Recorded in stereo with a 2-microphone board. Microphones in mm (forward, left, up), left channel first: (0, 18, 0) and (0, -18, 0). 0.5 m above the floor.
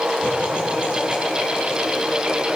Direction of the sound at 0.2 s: 30° right (ahead or behind).